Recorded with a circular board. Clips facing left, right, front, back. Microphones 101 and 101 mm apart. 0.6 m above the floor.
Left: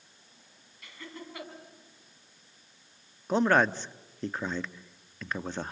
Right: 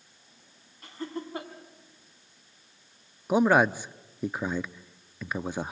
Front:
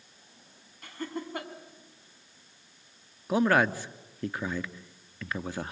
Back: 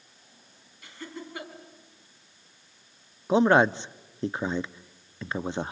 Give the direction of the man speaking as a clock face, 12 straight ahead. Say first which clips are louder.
Right 3 dB, back 4 dB; 5 o'clock.